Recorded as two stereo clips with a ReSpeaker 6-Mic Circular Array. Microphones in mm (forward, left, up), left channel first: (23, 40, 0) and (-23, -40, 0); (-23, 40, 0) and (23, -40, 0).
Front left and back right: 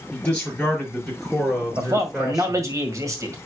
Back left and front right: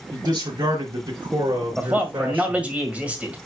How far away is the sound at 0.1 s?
About 4.5 m.